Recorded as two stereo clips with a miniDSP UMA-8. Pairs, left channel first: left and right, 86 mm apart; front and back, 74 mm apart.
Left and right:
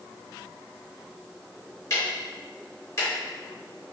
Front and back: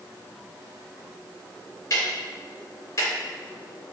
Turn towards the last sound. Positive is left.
turn(degrees=45)